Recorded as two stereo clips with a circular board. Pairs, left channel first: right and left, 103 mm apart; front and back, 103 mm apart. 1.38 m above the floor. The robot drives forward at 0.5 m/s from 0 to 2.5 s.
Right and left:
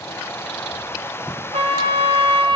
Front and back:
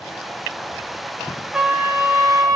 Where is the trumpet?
95° left, 0.8 m; by 2.6 s 125° left, 1.0 m.